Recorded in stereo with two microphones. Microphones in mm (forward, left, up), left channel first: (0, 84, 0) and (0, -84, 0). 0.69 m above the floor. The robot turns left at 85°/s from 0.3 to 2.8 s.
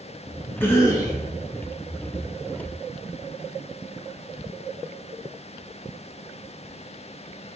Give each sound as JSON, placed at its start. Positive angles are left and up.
{"t": 0.6, "sound": "a cough", "side_deg": 10, "distance_m": 0.8}